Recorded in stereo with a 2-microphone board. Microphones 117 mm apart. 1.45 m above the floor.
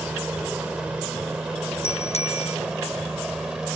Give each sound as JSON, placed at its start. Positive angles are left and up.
{"t": 0.0, "sound": "a helicopter", "side_deg": -10}
{"t": 1.8, "sound": "a bicycle bell", "side_deg": 65}